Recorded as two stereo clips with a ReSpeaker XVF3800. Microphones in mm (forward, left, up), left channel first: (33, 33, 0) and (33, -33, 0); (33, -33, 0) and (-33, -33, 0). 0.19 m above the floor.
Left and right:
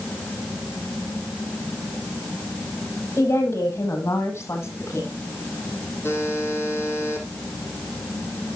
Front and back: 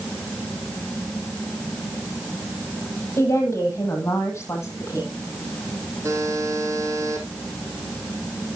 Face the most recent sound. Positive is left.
turn(degrees=140)